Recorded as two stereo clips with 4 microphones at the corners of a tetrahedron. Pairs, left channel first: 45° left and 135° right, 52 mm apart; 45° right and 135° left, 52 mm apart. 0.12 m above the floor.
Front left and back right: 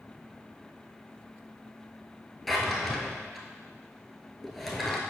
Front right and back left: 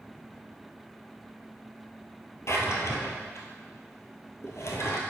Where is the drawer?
45° right, 1.0 m.